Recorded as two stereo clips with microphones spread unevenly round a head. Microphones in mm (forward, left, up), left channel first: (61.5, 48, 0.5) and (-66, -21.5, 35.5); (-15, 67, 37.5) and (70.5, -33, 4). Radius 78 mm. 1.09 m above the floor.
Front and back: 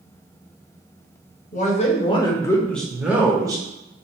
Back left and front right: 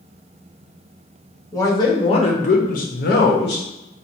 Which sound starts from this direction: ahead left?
A man speaking, at 1.5 s.